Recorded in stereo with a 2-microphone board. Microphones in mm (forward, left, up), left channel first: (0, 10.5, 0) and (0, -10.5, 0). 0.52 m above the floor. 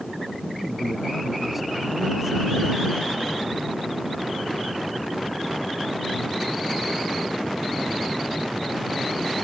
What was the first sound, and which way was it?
A man speaking, 5° right (ahead or behind).